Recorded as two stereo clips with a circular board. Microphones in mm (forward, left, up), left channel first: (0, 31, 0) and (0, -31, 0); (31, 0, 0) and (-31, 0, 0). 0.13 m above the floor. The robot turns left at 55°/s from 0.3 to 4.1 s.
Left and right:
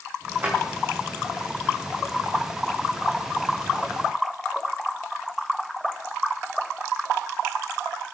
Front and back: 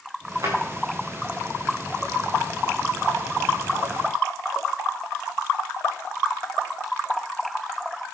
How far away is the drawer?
About 4 m.